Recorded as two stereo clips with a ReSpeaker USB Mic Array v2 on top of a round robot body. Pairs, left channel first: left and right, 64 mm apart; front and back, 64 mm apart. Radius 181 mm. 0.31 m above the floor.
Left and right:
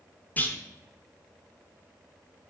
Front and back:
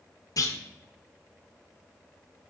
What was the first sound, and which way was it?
A clunk, 25° left.